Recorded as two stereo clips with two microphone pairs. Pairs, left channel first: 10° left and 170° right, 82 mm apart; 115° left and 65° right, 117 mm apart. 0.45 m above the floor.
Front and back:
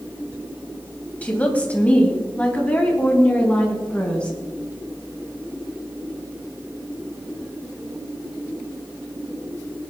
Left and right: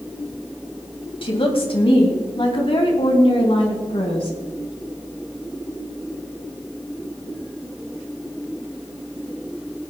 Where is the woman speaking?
80° left, 2.5 m; by 4.4 s 85° left, 4.5 m.